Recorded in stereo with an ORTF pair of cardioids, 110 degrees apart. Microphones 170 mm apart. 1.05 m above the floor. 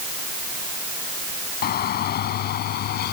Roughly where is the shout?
Ahead left.